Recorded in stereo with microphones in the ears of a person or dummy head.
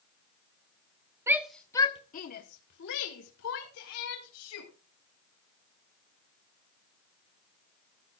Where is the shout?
10° right (ahead or behind), 1.1 m; by 4.7 s 85° left, 3.5 m.